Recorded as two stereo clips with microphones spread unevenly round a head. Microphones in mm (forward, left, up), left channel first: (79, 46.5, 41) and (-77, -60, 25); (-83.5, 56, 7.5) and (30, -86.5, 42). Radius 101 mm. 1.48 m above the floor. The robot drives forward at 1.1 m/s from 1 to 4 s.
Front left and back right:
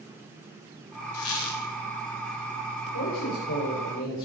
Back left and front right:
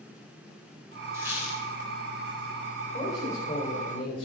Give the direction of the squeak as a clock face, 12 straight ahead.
11 o'clock.